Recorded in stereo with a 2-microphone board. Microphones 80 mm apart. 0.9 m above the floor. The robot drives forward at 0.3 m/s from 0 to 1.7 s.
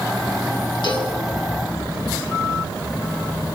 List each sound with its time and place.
0.8 s a cowbell: 70° left (ahead or behind), 6 m